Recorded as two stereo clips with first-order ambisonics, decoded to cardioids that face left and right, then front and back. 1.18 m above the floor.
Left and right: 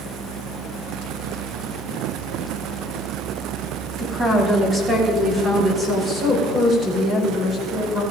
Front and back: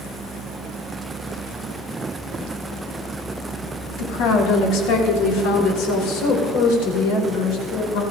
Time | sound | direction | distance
4.0 | a woman speaking | 25° right | 2.5 m